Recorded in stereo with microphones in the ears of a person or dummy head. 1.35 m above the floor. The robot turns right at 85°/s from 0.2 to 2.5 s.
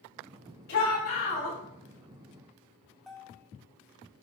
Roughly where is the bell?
Centre.